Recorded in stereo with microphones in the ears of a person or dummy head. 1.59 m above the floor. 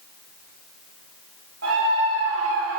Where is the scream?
85° right, 4 m; by 2.8 s 75° right (ahead or behind), 4.5 m.